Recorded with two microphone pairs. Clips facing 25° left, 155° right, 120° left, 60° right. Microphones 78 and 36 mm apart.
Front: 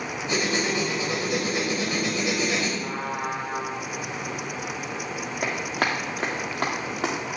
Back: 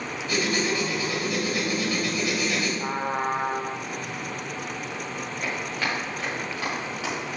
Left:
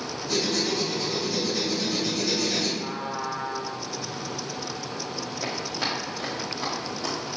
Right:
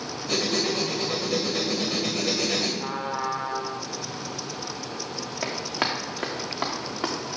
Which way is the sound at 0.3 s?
40° right.